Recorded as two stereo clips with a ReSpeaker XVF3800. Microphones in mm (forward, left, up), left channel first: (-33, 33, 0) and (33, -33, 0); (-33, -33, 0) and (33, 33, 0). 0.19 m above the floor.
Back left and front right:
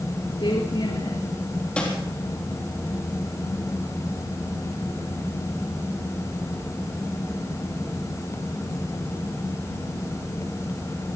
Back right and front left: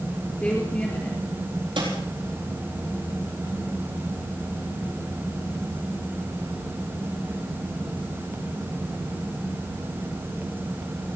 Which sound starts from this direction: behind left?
A woman speaking, at 0.4 s.